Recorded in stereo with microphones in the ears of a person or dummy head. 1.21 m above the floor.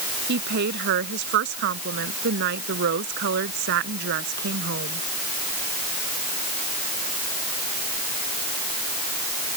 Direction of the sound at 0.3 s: 65° right (ahead or behind).